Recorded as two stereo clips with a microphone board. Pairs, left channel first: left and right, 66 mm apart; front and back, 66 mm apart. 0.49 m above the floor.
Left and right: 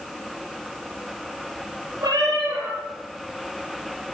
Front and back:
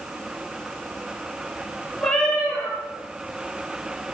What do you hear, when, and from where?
2.0 s a cat meowing: 80° right, 5.5 m